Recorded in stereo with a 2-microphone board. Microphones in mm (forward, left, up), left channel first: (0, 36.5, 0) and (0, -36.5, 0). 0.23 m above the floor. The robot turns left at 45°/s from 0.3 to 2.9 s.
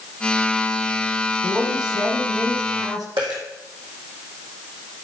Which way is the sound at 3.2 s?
80° right.